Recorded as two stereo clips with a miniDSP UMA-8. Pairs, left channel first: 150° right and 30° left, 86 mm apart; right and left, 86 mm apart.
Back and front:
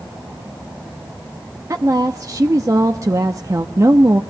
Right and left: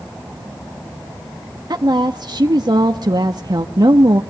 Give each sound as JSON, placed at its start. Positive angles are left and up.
{"t": 1.7, "sound": "a woman speaking", "azimuth_deg": 75, "distance_m": 0.9}